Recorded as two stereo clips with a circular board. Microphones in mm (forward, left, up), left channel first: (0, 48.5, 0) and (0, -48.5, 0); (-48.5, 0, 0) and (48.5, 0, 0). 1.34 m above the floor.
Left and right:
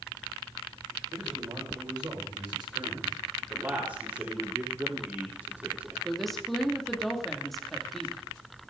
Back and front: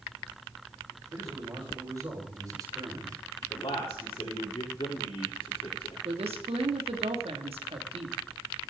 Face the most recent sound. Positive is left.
turn(degrees=0)